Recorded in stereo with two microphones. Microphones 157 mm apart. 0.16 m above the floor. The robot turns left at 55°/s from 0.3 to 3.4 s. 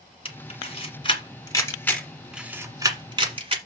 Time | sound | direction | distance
0.2 | a camera shutter | 35° left (ahead or behind) | 1.6 m